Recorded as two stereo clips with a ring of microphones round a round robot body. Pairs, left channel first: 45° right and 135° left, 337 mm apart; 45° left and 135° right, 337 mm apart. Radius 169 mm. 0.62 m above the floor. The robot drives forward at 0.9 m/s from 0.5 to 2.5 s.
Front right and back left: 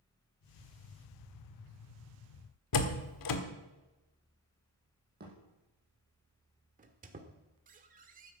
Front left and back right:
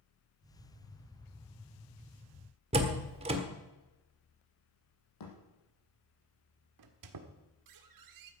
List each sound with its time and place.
2.7 s a door slam: 65° right, 1.6 m
5.2 s a thud: 70° left, 5.5 m
6.8 s a squeak: 160° right, 1.5 m